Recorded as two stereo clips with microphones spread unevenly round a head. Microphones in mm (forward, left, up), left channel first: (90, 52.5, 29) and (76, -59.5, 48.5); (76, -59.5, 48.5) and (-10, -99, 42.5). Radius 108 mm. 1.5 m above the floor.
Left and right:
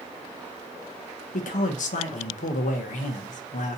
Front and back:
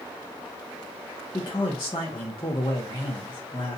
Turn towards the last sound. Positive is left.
turn(degrees=85)